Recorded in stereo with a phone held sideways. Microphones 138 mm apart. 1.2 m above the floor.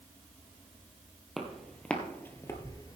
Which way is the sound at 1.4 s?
Centre (ahead or behind).